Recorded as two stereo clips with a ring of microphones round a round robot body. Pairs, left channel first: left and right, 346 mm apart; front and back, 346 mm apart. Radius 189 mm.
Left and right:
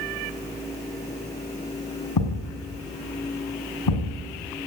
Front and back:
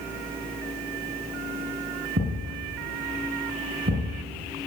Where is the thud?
110° left, 7.5 m.